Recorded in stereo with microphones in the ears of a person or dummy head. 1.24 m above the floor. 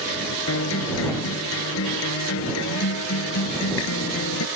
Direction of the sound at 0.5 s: 75° left (ahead or behind).